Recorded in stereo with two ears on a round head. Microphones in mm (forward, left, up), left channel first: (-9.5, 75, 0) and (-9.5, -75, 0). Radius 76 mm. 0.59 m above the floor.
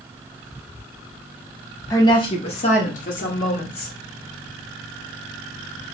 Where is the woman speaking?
20° left (ahead or behind), 0.8 m; by 3.9 s 60° left (ahead or behind), 1.5 m.